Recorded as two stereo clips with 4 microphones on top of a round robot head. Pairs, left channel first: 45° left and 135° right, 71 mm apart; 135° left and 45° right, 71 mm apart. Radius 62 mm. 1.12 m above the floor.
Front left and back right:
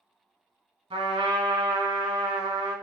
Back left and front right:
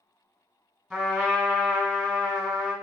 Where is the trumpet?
135° right, 1.2 m.